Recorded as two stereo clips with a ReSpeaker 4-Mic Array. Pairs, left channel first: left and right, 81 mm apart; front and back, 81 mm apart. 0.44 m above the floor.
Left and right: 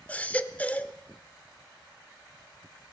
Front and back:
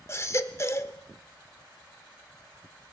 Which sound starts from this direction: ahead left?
A baby crying, at 0.1 s.